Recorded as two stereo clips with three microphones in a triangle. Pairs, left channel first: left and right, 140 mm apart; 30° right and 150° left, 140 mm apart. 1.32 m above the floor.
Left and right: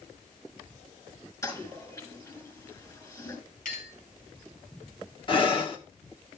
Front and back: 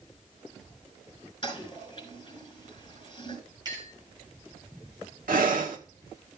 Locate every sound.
1.4 s a toilet flushing: 25° left, 6 m
3.6 s a clink: 90° left, 4 m
5.3 s breathing: 140° left, 1.3 m